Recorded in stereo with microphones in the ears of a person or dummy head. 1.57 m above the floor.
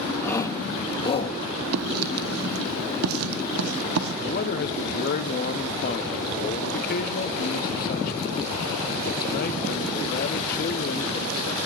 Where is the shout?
15° left (ahead or behind), 2 m; by 1.4 s 35° left (ahead or behind), 2 m.